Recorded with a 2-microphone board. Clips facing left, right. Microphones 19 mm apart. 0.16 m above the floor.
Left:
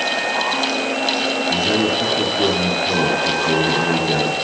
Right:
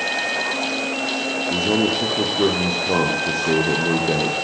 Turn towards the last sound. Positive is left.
turn(degrees=-60)  # may be behind; listen again after turning